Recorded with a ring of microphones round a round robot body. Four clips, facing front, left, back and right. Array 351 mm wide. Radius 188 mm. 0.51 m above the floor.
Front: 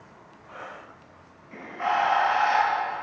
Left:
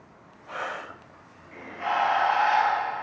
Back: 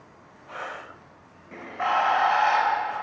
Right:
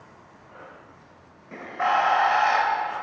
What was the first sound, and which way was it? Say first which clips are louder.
A bird: right 5 dB, back 1 dB; 115° right.